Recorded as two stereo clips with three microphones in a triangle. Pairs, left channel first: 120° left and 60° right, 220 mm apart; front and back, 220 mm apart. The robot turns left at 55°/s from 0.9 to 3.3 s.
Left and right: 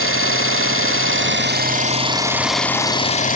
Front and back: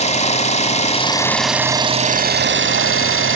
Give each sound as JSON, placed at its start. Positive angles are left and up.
{"t": 0.0, "sound": "an engine running", "azimuth_deg": -60, "distance_m": 0.9}